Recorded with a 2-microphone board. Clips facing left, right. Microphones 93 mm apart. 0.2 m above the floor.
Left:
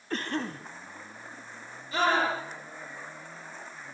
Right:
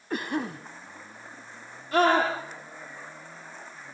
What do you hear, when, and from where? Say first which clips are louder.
0.1 s a cough: right 2 dB; 10° right (ahead or behind), 1.0 m
1.9 s a scream: right 4 dB; 50° right (ahead or behind), 7 m